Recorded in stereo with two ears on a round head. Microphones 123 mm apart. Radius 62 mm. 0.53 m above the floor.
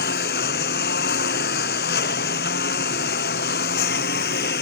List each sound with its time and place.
0.0 s a lawn mower: 80° left